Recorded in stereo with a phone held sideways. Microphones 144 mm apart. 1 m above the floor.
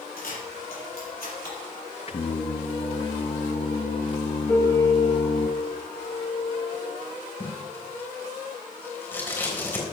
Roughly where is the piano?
Centre.